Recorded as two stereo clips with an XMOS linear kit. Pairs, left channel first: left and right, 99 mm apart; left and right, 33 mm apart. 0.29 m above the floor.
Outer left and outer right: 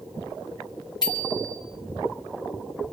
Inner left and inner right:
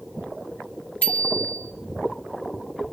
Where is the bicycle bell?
45° left (ahead or behind), 3 m.